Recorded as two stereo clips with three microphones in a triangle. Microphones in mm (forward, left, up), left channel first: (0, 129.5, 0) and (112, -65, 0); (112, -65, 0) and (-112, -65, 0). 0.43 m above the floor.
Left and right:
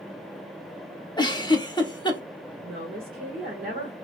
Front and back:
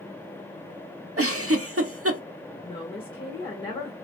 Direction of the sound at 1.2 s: 170° right.